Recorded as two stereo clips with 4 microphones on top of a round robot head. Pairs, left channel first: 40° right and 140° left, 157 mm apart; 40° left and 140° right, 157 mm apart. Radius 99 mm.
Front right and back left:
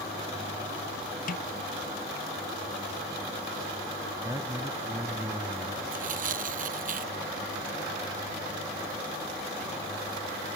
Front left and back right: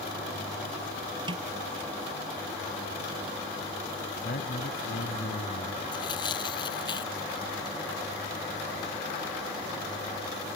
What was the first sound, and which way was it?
A snare drum, 80° right.